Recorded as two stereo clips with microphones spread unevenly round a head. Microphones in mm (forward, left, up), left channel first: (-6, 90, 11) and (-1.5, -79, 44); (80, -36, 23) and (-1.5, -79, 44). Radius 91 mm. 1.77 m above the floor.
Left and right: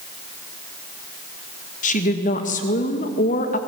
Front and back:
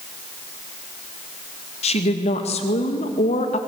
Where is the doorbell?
No doorbell in this recording.